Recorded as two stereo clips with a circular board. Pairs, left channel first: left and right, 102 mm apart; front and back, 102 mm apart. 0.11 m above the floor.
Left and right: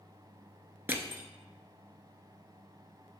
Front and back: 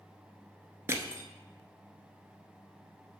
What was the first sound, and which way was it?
Crushing, 140° right.